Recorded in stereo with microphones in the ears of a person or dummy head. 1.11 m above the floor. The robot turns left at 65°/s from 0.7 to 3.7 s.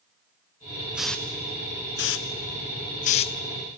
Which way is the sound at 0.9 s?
5° right (ahead or behind).